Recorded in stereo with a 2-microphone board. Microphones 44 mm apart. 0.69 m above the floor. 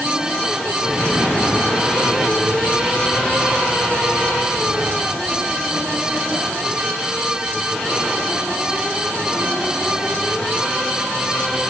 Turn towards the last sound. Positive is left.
No sound to turn to.